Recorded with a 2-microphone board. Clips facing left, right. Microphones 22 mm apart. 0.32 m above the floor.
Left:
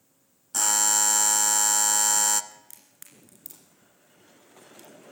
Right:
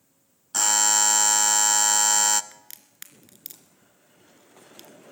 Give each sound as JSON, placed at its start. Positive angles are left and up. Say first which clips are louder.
{"t": 0.5, "sound": "a buzzer", "louder": "right 2 dB", "side_deg": -20, "distance_m": 0.6}
{"t": 2.5, "sound": "a crack", "louder": "right 3 dB", "side_deg": -55, "distance_m": 1.8}